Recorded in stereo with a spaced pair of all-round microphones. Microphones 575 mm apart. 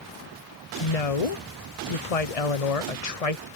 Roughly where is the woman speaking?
Left.